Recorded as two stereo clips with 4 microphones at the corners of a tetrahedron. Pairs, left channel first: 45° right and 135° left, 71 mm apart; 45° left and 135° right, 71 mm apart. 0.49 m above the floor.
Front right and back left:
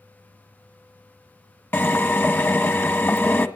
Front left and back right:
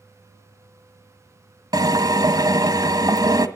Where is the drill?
105° right, 1.6 m.